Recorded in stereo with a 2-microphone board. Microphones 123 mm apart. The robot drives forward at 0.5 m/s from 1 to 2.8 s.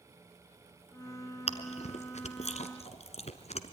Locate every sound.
1.5 s chewing: 60° left (ahead or behind), 1.2 m; by 3.7 s 65° left (ahead or behind), 1.2 m